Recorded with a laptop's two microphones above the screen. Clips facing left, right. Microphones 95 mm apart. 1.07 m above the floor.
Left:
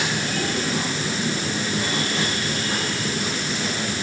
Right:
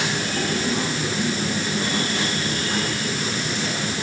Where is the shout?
No shout in this recording.